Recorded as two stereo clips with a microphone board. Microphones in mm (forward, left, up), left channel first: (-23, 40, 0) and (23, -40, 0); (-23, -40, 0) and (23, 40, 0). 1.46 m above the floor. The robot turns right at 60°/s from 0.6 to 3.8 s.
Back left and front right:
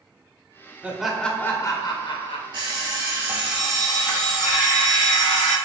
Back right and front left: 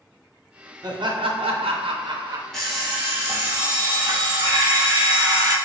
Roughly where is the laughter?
Ahead.